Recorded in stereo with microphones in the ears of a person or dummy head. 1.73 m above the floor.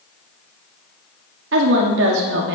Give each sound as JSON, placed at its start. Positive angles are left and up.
{"t": 1.5, "sound": "a woman speaking", "side_deg": -70, "distance_m": 1.1}